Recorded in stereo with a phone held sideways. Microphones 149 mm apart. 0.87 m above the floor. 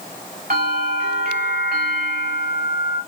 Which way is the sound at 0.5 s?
80° right.